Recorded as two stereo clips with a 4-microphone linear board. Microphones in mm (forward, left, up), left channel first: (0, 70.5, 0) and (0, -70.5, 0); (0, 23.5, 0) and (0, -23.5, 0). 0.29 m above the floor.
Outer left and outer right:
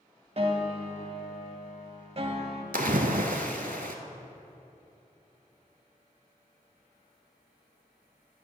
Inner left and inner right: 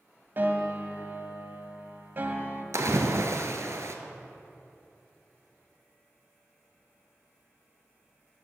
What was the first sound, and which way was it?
A piano, 45° right (ahead or behind).